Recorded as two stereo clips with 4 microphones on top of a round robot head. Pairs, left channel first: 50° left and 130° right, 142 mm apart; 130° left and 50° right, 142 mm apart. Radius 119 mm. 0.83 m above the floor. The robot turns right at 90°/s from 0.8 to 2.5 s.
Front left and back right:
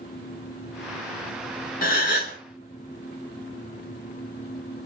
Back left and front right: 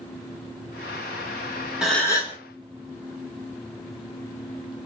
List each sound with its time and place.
1.8 s a gasp: 35° left, 2 m; by 2.4 s 85° left, 2 m